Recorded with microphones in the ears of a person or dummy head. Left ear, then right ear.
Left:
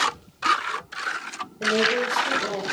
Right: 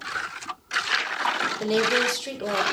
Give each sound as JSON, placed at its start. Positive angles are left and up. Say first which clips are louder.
{"t": 1.6, "sound": "a woman speaking", "louder": "left 2 dB", "side_deg": -75, "distance_m": 8.5}